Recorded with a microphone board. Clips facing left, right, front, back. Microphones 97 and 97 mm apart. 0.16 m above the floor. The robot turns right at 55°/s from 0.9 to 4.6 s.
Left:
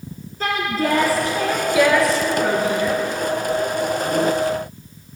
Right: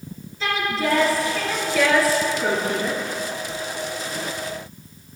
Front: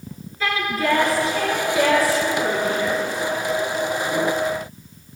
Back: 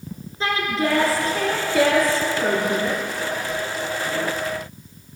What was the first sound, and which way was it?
A woman speaking, 120° left.